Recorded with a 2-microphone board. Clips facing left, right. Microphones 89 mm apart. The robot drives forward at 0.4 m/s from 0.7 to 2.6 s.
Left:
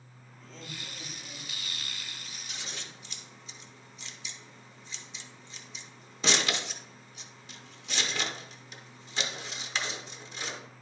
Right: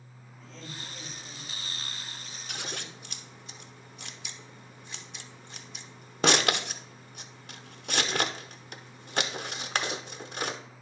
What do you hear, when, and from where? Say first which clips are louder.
0.4 s laughter: right 1 dB; centre (ahead or behind), 2.5 m
2.5 s scissors: right 6 dB; 55° right (ahead or behind), 0.8 m